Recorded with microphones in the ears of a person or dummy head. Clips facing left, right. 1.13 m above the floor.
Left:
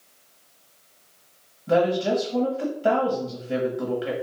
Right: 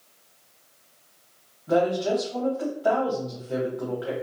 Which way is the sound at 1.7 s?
35° left (ahead or behind).